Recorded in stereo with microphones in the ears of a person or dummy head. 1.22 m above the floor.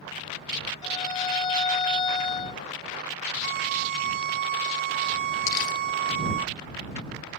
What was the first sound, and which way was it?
A violin, 30° left (ahead or behind).